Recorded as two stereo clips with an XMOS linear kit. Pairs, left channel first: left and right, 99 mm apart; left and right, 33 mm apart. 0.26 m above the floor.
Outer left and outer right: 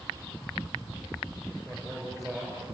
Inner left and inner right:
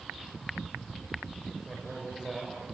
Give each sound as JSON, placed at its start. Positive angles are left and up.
{"t": 1.6, "sound": "a man speaking", "side_deg": 5, "distance_m": 4.5}